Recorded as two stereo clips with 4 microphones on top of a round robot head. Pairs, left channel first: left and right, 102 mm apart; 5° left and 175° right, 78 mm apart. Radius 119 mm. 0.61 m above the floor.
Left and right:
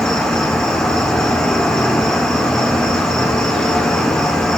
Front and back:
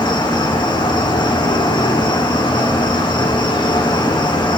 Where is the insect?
5° left, 2.0 m.